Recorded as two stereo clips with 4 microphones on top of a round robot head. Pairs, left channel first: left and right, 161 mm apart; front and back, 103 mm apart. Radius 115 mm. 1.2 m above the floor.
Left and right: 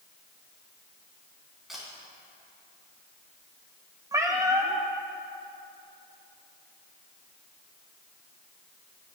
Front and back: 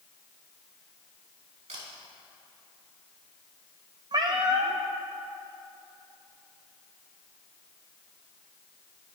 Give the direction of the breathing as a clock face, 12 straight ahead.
No breathing in this recording.